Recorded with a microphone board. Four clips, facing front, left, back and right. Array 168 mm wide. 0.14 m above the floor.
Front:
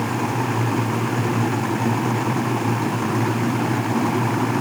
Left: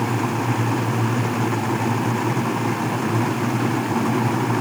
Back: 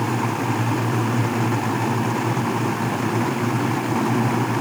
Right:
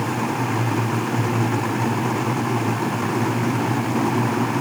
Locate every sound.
Only background noise.